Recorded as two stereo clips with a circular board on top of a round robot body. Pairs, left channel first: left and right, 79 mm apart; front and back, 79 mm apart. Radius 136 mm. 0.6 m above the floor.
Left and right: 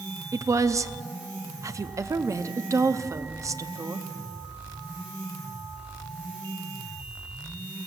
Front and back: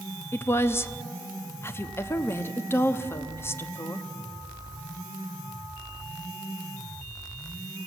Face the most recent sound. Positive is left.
turn(degrees=-50)